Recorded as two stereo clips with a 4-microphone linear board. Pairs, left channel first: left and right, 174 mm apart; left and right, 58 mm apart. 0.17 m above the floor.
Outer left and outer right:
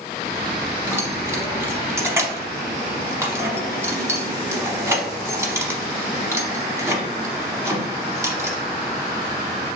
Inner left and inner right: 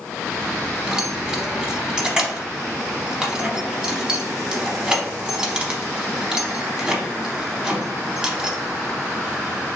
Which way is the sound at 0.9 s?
15° right (ahead or behind).